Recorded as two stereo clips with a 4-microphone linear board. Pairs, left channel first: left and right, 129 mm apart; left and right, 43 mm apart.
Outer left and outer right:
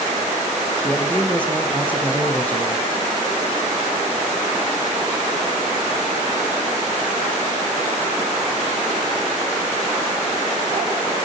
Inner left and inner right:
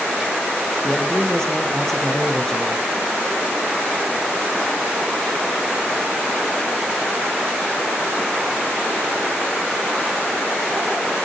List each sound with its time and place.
0.8 s a man speaking: 10° left (ahead or behind), 3 m